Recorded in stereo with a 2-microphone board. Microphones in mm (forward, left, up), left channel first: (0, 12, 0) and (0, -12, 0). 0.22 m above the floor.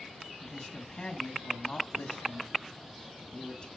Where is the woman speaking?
40° left (ahead or behind), 1.3 m.